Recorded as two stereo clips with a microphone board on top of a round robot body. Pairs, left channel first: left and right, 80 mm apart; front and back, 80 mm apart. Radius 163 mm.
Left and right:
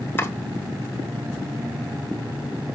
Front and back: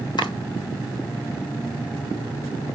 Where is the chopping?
25° left, 1.9 m.